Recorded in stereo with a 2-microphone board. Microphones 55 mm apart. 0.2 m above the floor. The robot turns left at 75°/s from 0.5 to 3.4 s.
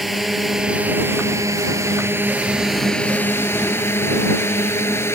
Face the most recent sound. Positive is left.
turn(degrees=50)  # may be behind; listen again after turning